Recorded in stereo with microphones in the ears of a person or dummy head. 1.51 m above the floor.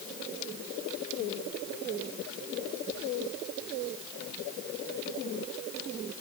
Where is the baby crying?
I don't hear a baby crying.